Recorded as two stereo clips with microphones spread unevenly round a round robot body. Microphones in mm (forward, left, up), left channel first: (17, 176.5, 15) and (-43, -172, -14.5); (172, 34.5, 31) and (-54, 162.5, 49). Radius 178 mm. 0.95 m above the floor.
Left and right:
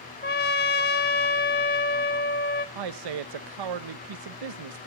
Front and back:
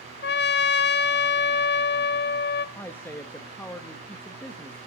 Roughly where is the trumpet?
Ahead.